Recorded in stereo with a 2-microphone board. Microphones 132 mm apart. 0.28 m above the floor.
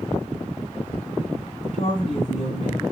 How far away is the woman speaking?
About 2 m.